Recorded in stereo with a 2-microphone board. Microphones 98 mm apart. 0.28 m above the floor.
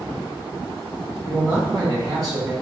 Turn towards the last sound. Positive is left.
turn(degrees=-45)  # may be behind; listen again after turning